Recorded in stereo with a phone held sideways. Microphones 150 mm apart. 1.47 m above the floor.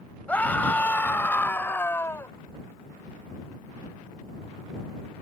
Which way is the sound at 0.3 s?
10° left (ahead or behind).